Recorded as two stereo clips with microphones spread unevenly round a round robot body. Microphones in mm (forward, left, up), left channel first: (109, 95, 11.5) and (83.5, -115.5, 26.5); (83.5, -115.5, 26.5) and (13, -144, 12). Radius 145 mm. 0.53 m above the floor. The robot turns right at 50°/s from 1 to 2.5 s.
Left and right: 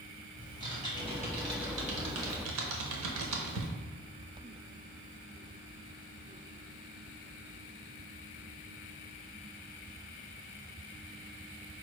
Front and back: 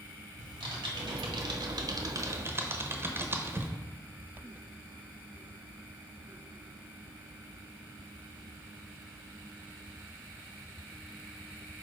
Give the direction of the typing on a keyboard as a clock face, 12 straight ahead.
6 o'clock.